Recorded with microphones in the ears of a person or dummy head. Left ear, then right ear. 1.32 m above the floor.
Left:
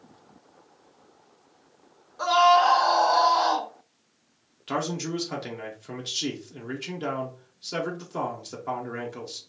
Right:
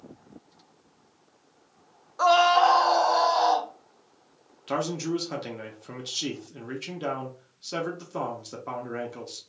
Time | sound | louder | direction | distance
2.2 | a scream | even | 40° right (ahead or behind) | 0.6 m
4.7 | a man speaking | right 1 dB | centre (ahead or behind) | 0.5 m